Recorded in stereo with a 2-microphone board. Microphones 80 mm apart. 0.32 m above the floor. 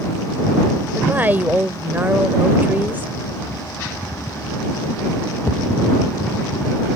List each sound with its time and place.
0.9 s a woman speaking: 25° right (ahead or behind)